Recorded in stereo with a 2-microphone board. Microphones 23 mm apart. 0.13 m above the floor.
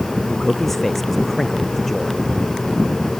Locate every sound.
0.3 s a man speaking: 10° left (ahead or behind)